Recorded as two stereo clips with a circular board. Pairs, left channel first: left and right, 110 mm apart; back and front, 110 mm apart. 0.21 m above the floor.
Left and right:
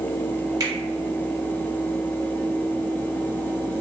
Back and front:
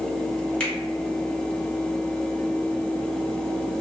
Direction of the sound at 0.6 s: 110° right.